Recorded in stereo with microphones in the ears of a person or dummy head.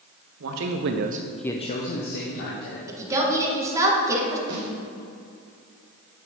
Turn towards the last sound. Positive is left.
turn(degrees=-20)  # may be behind; listen again after turning